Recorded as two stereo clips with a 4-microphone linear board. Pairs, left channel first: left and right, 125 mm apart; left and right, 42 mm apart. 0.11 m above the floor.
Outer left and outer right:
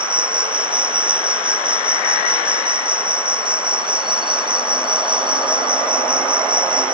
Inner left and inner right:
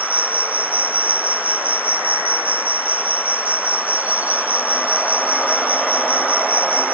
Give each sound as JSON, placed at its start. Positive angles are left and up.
{"t": 0.0, "sound": "an insect", "side_deg": -40}